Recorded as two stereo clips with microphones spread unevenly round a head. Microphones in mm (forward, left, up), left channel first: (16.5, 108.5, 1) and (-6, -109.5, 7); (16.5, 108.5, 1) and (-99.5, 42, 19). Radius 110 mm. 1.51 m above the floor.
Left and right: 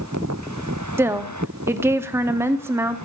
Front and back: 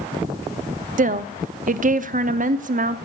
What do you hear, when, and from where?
1.0 s a woman speaking: 175° right, 0.8 m